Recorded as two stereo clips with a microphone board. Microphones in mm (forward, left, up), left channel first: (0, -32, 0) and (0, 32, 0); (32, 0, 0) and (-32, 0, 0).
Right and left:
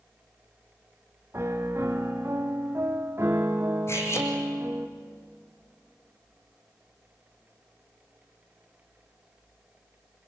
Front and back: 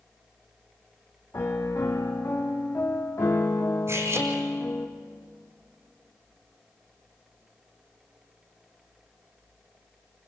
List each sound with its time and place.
1.3 s a piano: 40° left, 1.9 m
3.9 s cutlery clinking: 135° right, 3 m